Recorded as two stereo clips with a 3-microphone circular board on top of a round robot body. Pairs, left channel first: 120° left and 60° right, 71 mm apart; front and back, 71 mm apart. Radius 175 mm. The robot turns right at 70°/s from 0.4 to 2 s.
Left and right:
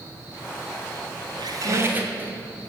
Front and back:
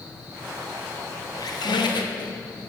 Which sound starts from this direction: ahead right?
A squeak, at 1.4 s.